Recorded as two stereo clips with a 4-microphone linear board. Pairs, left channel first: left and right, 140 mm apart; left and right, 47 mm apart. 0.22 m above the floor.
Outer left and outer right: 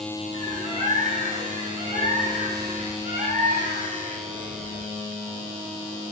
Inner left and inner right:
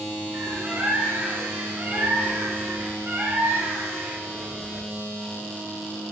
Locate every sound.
0.3 s a bird: 65° right (ahead or behind), 7 m